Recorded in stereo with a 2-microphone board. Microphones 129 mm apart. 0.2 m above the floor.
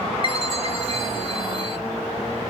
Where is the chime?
40° left (ahead or behind), 0.7 m.